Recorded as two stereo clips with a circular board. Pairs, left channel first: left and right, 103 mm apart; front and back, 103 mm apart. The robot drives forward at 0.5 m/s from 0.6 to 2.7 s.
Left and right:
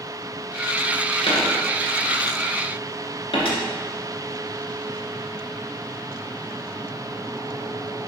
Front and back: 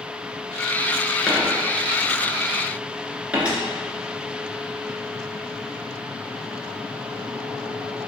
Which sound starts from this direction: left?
A dropped coin, at 1.3 s.